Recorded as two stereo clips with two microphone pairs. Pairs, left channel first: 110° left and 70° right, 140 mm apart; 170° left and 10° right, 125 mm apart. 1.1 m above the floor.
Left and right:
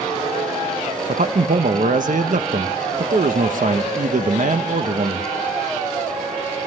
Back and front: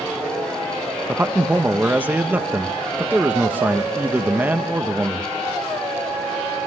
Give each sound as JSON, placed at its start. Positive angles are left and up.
{"t": 1.1, "sound": "a man speaking", "azimuth_deg": -85, "distance_m": 1.0}